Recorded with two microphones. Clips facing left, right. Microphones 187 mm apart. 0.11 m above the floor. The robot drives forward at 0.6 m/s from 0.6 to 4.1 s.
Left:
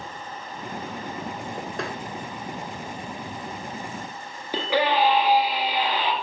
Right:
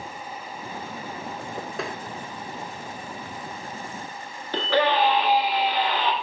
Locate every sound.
1.8 s tapping: centre (ahead or behind), 0.7 m
4.5 s a scream: 10° left (ahead or behind), 1.6 m